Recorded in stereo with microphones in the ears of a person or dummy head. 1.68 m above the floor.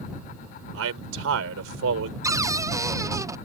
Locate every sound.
0.7 s a man speaking: 85° right
2.2 s a cupboard door: 15° right (ahead or behind)